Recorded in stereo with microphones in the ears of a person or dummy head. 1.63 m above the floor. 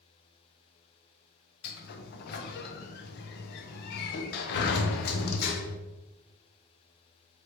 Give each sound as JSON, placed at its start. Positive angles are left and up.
{"t": 1.6, "sound": "a sliding door", "side_deg": 60, "distance_m": 0.7}